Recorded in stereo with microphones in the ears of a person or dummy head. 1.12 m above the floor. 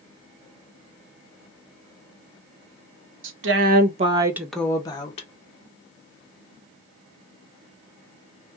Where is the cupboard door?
No cupboard door in this recording.